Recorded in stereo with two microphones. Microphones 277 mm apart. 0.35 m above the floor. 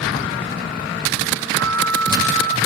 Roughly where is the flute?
Right.